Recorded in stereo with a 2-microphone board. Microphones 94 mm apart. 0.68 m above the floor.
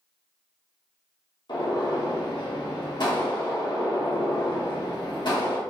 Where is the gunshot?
55° left (ahead or behind), 0.9 m.